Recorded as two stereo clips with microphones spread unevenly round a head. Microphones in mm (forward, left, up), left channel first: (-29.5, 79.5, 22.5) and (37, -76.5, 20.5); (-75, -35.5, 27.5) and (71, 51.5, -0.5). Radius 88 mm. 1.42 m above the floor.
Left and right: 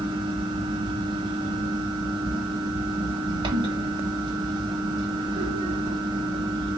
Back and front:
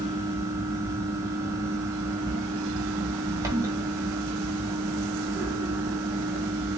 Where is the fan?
45° right, 0.7 m.